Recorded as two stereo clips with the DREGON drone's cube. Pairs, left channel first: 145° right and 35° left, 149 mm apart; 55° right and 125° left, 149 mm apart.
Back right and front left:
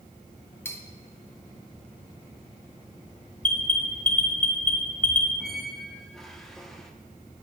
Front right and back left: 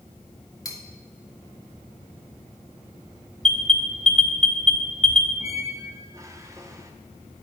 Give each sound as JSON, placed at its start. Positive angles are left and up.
{"t": 0.7, "sound": "cutlery clinking", "azimuth_deg": -90, "distance_m": 0.8}
{"t": 3.4, "sound": "an alarm", "azimuth_deg": -140, "distance_m": 0.9}
{"t": 5.4, "sound": "a squeak", "azimuth_deg": 130, "distance_m": 0.6}